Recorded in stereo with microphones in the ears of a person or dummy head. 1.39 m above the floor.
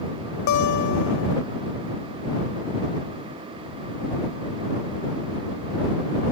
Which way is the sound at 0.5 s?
65° left (ahead or behind).